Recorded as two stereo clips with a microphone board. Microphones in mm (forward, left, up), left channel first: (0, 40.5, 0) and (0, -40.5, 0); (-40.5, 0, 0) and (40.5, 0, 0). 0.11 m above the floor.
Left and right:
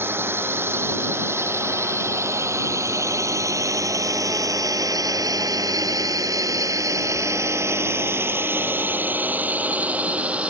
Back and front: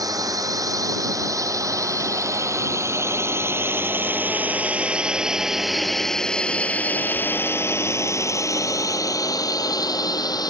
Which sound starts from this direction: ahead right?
A drone, at 0.0 s.